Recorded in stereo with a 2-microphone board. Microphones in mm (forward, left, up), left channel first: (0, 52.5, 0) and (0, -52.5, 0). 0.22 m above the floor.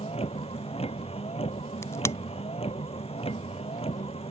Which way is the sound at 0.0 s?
80° left.